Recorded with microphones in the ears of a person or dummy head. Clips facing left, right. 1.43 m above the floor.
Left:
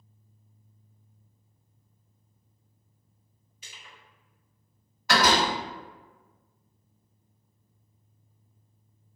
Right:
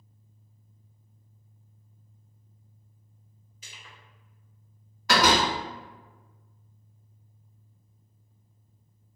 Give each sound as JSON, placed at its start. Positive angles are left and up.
{"t": 3.6, "sound": "crushing", "side_deg": -40, "distance_m": 1.8}
{"t": 5.1, "sound": "a door slam", "side_deg": -65, "distance_m": 1.9}